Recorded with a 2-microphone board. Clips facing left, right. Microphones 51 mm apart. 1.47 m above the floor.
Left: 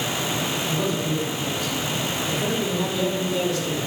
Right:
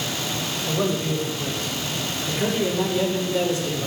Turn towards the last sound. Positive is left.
turn(degrees=-25)  # may be behind; listen again after turning